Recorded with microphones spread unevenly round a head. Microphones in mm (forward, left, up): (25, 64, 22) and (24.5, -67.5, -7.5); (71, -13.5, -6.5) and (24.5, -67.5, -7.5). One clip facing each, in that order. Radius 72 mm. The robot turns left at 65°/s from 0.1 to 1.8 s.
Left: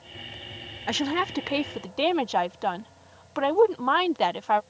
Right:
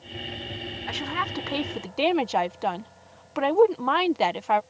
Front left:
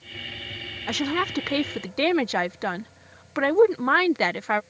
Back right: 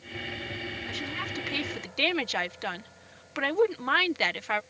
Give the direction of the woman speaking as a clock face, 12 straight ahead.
10 o'clock.